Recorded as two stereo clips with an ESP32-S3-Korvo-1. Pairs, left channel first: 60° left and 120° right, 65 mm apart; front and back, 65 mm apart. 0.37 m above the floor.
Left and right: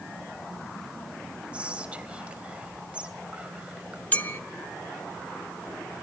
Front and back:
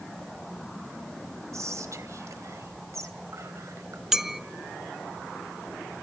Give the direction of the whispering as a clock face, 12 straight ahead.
6 o'clock.